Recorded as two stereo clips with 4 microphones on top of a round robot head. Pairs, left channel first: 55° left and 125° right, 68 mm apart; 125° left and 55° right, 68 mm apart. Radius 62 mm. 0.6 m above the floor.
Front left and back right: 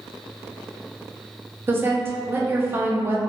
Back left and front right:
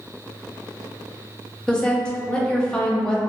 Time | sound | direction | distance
1.7 | a woman speaking | 160° right | 0.8 m